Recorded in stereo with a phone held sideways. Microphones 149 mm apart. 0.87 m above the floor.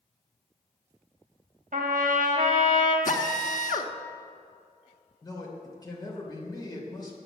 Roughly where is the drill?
Left.